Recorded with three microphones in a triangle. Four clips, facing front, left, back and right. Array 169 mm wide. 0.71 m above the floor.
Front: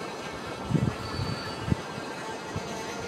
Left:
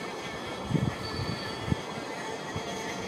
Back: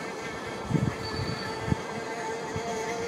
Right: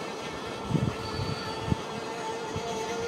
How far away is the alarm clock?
About 9.5 m.